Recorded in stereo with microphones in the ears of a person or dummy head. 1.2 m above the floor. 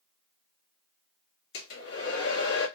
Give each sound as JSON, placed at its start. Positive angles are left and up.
{"t": 1.5, "sound": "a hair dryer", "side_deg": 60, "distance_m": 1.4}